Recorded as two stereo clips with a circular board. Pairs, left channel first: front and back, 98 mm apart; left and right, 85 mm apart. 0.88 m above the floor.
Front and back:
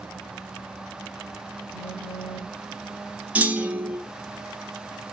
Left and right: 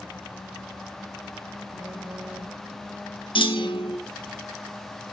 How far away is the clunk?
About 1.0 m.